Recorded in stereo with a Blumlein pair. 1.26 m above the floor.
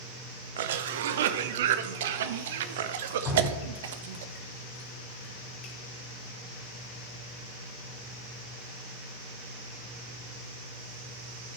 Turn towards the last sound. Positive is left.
turn(degrees=30)